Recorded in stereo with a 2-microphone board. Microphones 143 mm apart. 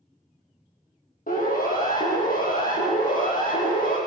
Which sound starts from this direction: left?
A siren, at 1.3 s.